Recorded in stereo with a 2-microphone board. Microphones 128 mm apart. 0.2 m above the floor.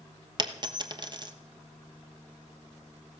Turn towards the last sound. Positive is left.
turn(degrees=-35)  # may be behind; listen again after turning